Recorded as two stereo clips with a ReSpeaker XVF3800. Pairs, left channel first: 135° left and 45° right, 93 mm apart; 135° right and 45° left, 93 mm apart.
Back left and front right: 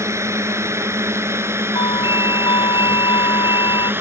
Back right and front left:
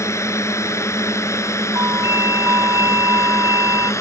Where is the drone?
90° right; by 4.0 s 100° right.